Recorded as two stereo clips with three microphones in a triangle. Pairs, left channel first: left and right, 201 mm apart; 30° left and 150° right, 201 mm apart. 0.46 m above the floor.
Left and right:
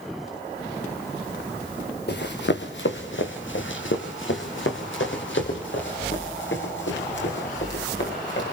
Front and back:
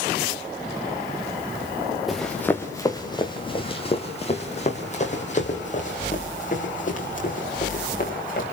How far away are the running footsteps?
About 2.5 m.